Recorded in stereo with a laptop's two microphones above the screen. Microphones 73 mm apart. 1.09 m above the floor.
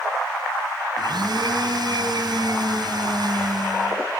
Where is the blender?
70° right (ahead or behind), 3.5 m.